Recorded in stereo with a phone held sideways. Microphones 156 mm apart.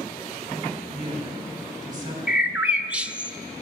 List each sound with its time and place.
0.9 s a man speaking: 25° right (ahead or behind), 4.5 m
2.3 s a bird: 10° right (ahead or behind), 0.5 m